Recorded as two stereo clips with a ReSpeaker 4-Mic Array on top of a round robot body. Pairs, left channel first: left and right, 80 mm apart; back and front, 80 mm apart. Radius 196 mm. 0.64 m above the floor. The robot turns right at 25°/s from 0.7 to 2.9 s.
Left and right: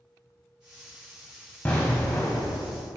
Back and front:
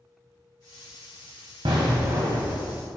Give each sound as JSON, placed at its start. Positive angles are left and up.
{"t": 1.6, "sound": "an explosion", "azimuth_deg": 20, "distance_m": 0.6}